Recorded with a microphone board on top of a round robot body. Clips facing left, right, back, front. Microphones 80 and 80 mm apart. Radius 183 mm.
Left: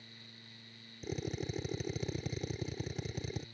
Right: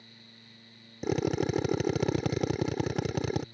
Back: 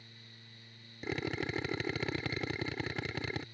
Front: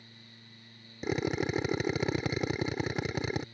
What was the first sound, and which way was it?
A drill, 70° right.